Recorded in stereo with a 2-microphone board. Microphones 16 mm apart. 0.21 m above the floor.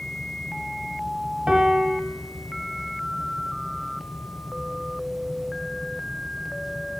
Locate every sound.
1.5 s a piano: 75° right (ahead or behind), 1.4 m